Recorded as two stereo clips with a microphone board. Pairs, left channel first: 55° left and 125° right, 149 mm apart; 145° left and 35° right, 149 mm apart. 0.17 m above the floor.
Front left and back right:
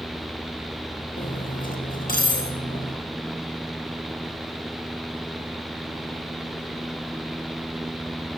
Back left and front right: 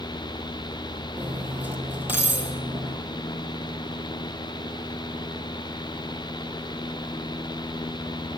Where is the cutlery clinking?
45° left, 3 m.